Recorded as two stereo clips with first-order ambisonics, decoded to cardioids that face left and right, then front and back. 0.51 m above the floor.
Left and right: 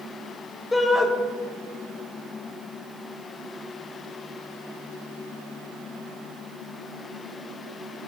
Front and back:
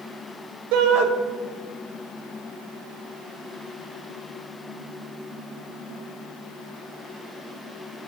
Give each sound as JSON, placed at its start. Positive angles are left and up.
{"t": 0.7, "sound": "a shout", "azimuth_deg": 170, "distance_m": 2.5}